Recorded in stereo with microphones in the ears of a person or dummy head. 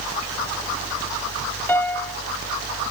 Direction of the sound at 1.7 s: 10° left (ahead or behind).